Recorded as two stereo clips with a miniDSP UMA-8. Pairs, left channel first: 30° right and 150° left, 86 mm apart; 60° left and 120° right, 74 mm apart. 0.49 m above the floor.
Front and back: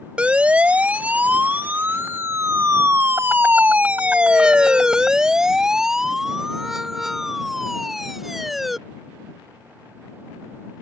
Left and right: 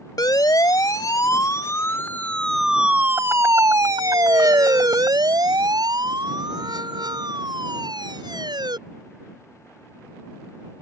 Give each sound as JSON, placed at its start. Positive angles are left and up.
{"t": 0.2, "sound": "a siren", "azimuth_deg": 75}